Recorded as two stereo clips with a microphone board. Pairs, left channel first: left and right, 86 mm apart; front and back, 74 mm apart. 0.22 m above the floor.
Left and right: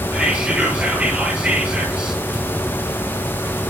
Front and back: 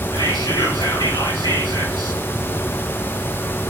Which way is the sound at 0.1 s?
10° right.